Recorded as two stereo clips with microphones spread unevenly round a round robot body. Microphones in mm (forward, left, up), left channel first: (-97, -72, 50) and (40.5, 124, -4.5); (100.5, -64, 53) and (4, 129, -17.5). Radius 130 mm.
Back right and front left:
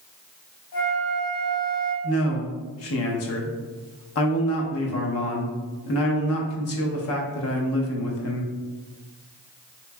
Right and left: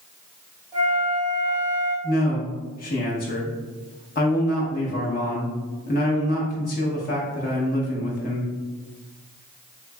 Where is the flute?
130° right, 1.9 m.